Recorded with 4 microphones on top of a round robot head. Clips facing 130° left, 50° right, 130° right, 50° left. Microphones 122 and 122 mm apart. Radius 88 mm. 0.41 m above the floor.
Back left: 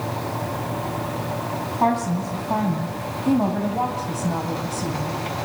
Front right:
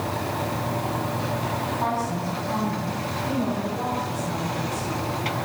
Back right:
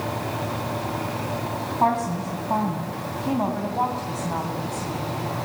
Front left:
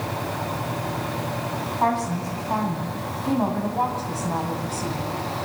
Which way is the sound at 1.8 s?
165° left.